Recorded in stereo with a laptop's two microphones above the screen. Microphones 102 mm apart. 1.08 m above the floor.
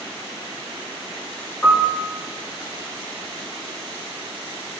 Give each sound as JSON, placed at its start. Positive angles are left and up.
{"t": 1.6, "sound": "a piano", "side_deg": 20, "distance_m": 0.8}